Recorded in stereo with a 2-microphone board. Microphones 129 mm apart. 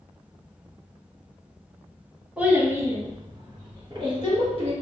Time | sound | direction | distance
2.4 | a child speaking | 10° right (ahead or behind) | 0.9 m